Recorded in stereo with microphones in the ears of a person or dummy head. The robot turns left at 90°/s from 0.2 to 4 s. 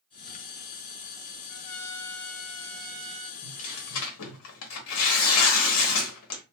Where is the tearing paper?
155° left, 0.9 m; by 6.4 s 100° left, 0.9 m.